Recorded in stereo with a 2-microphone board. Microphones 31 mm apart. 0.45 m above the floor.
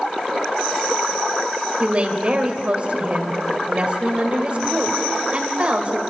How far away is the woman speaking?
About 2.5 m.